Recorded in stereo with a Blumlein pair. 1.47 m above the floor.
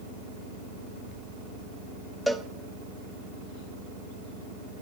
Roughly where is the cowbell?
Ahead.